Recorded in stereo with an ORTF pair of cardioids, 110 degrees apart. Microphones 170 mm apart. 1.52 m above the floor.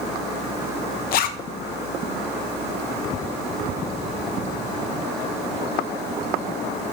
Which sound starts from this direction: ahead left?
A zipper, at 1.1 s.